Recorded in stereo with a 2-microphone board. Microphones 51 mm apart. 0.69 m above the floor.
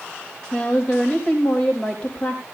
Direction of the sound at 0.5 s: 20° left (ahead or behind).